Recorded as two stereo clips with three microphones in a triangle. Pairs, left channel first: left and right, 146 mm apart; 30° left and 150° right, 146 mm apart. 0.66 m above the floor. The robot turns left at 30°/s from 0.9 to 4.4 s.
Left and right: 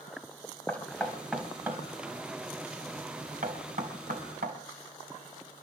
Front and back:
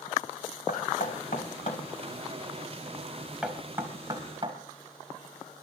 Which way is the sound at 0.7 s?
10° left.